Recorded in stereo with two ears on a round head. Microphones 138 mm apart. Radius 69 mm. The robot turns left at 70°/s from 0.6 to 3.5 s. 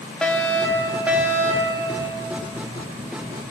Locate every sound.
0.2 s a fire alarm: 5° left (ahead or behind), 1.7 m; by 1.8 s 25° right (ahead or behind), 1.7 m